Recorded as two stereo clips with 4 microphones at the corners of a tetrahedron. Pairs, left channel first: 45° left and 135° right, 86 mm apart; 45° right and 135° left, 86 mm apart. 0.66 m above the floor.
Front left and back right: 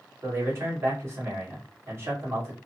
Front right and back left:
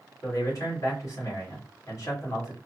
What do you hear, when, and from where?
0.2 s a man speaking: 85° right, 2.0 m